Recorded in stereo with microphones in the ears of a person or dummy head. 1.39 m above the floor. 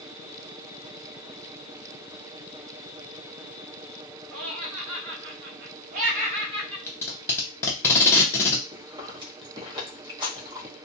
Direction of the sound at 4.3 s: 85° right.